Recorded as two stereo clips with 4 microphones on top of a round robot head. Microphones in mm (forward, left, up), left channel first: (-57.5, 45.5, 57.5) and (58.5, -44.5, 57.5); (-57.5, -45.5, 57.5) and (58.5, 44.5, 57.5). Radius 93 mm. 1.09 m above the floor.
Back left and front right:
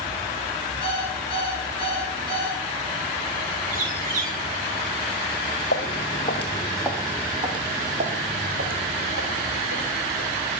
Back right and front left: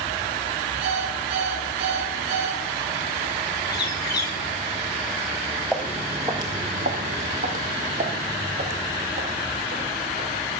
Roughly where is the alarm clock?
Left.